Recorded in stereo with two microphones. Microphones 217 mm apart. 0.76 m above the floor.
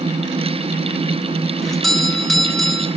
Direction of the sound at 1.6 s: Centre (ahead or behind).